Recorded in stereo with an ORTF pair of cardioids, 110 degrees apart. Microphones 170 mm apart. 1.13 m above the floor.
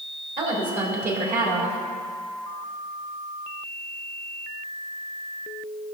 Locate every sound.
0.4 s a woman speaking: 55° right, 3.5 m